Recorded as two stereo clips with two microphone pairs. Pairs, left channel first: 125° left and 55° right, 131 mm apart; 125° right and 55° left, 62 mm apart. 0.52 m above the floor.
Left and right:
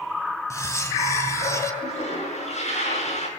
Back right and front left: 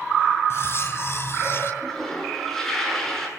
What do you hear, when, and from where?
0.5 s cutlery clinking: 170° right, 2.5 m
1.8 s a toilet flushing: 150° left, 8 m